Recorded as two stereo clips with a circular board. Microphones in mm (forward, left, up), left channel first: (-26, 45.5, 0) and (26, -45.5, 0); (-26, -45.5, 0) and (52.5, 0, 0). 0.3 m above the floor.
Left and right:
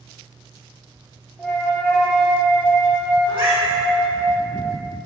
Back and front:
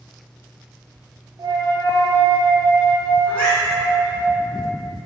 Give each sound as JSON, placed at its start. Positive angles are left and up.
{"t": 1.4, "sound": "a flute", "azimuth_deg": 40, "distance_m": 0.6}
{"t": 3.3, "sound": "a cat meowing", "azimuth_deg": -80, "distance_m": 2.0}